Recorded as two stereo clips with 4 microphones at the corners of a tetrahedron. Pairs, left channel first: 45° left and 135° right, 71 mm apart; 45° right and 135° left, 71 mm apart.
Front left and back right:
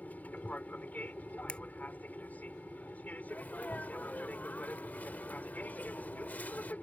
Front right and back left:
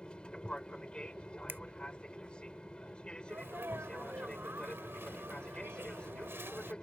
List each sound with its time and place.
0.0 s an aircraft: 15° left
1.5 s a finger snap: 105° left
3.3 s a sneeze: 100° left